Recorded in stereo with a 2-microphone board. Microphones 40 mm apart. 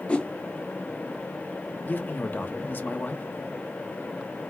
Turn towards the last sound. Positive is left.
turn(degrees=45)  # may be behind; listen again after turning